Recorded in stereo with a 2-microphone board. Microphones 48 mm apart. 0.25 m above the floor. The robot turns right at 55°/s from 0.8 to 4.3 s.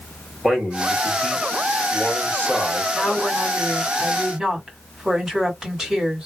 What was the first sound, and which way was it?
A man speaking, 5° right.